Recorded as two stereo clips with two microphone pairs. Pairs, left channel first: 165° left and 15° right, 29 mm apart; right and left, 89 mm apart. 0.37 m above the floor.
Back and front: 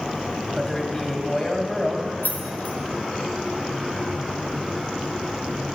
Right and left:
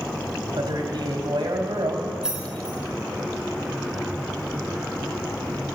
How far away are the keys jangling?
About 2.5 m.